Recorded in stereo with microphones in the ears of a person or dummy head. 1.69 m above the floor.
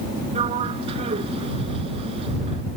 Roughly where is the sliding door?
Right.